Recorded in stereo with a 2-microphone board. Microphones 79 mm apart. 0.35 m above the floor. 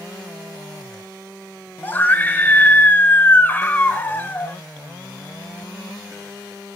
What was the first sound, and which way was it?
A scream, 25° left (ahead or behind).